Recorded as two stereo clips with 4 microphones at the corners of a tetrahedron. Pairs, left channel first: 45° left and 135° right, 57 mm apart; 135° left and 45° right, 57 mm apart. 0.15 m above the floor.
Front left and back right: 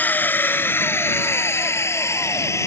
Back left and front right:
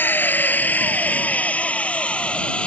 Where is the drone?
95° left; by 2.7 s 65° left.